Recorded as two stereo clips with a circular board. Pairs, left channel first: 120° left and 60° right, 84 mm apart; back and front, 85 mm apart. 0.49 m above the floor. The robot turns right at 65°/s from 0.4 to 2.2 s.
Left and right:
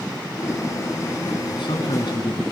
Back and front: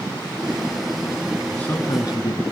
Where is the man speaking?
100° left, 5 m; by 2.4 s 145° left, 5 m.